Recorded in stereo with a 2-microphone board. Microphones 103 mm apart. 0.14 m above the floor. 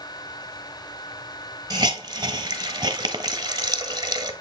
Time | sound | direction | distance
1.7 | a hiss | 40° right (ahead or behind) | 1.0 m